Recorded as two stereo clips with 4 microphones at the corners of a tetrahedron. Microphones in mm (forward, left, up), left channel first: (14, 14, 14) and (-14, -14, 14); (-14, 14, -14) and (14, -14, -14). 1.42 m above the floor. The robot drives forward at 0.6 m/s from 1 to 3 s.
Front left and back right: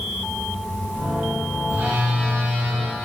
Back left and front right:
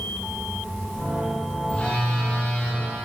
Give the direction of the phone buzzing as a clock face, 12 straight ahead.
5 o'clock.